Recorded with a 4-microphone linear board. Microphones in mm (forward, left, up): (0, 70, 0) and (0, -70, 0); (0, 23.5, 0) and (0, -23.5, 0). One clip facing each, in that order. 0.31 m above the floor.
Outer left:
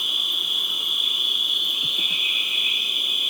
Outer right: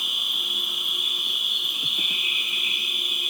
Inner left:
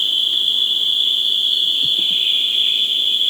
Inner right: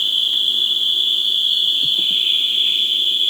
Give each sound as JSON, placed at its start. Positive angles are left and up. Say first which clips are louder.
{"t": 0.0, "sound": "an insect", "louder": "outer left 1 dB, even", "side_deg": 65, "distance_m": 1.5}